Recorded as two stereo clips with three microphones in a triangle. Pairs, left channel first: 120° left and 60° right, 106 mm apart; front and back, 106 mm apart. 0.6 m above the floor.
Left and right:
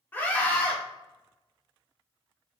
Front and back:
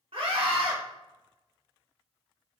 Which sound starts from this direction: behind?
A scream, at 0.1 s.